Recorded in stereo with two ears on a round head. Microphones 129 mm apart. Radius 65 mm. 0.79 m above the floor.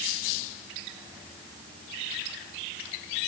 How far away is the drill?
I don't hear a drill.